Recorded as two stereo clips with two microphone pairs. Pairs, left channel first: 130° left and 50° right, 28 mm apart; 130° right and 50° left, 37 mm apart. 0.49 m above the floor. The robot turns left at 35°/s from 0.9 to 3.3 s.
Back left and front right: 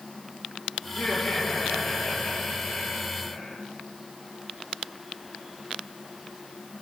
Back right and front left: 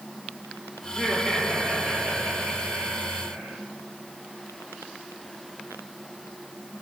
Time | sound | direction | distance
0.8 | laughter | 115° left | 8 m